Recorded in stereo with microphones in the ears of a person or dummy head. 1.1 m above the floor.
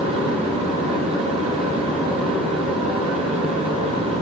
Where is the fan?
25° right (ahead or behind), 1.8 m.